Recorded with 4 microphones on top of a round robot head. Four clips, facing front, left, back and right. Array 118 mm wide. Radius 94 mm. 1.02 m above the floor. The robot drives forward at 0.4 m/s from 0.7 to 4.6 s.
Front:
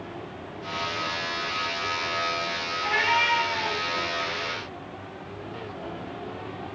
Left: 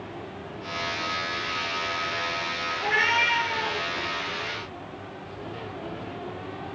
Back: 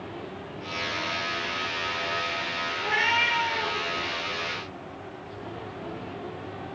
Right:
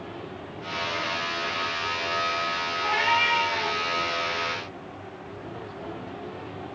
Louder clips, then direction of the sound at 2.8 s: Right 1 dB, front 2 dB; 130° left.